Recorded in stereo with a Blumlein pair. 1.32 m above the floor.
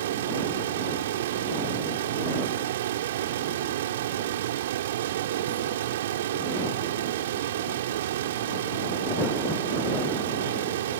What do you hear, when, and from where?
0.0 s a fan: 60° right